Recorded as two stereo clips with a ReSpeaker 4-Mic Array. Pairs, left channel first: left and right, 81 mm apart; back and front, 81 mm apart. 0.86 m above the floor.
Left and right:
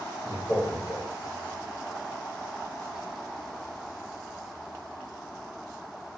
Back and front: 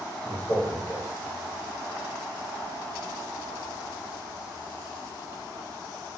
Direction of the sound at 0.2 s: 130° left.